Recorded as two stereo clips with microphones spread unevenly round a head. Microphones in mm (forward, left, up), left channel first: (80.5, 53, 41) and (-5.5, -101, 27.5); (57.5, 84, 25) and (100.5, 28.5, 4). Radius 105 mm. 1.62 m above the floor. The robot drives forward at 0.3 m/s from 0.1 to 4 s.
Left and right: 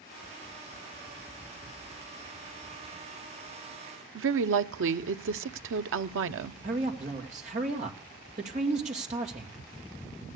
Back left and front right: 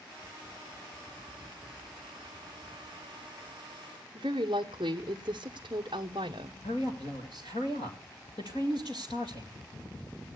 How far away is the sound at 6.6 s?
About 2 m.